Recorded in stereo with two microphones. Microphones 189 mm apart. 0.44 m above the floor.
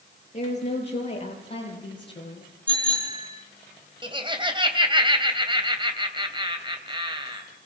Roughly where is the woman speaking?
Left.